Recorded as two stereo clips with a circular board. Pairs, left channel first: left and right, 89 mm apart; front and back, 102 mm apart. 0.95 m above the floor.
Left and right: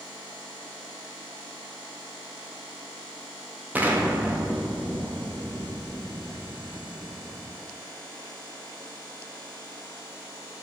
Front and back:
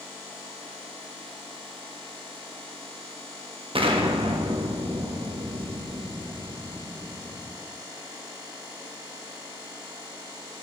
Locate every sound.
3.8 s an explosion: 160° right, 1.2 m